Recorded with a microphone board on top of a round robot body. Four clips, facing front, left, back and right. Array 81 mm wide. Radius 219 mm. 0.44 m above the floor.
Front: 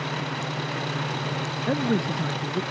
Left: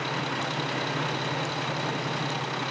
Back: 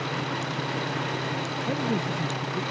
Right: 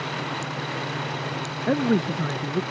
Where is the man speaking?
70° right.